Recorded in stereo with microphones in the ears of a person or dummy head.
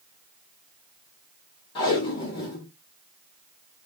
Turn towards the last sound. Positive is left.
turn(degrees=30)  # may be behind; listen again after turning